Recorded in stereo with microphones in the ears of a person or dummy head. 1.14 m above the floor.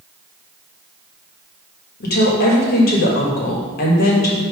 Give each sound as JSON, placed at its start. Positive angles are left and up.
{"t": 2.0, "sound": "a woman speaking", "side_deg": 55, "distance_m": 1.5}